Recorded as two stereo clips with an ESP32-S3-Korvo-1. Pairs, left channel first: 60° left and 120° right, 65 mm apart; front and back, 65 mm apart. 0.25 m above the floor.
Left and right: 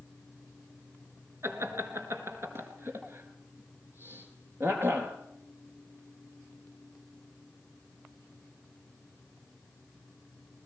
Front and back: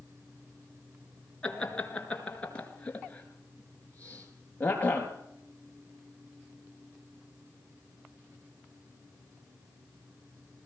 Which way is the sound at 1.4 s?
75° right.